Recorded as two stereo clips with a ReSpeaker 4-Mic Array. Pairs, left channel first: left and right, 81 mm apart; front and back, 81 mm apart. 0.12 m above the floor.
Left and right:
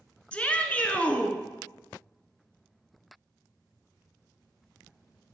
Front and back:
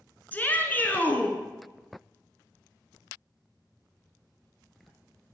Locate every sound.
0.3 s a shout: 40° left, 1.1 m